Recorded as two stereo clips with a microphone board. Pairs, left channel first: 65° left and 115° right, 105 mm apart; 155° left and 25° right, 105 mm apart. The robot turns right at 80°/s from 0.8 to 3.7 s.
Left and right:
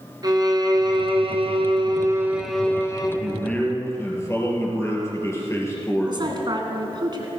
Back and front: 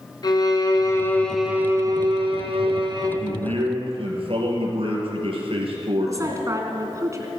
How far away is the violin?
About 1.9 m.